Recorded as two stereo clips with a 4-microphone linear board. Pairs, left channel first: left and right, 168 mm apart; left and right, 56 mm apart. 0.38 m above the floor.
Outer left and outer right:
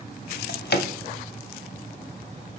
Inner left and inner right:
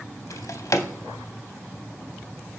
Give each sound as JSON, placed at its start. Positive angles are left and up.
{"t": 0.3, "sound": "a drawer", "side_deg": 85, "distance_m": 0.5}